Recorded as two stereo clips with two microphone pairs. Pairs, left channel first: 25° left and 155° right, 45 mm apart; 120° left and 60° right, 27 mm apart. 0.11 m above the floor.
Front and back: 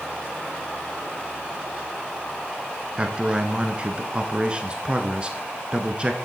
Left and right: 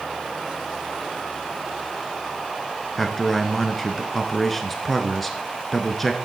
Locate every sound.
3.0 s a man speaking: 165° right, 1.1 m